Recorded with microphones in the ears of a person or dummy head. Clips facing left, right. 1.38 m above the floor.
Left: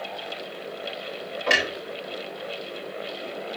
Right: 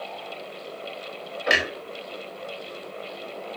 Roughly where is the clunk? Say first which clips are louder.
Even; centre.